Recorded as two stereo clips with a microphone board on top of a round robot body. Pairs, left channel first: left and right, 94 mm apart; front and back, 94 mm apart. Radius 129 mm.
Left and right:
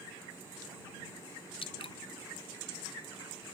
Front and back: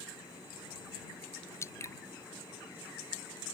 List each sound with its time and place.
1.6 s dripping: 60° left